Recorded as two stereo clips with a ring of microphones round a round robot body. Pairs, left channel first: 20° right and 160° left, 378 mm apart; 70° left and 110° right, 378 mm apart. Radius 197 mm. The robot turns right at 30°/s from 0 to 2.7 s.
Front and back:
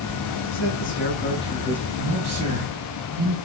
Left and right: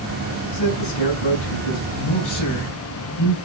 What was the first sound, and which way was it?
A man speaking, 25° left.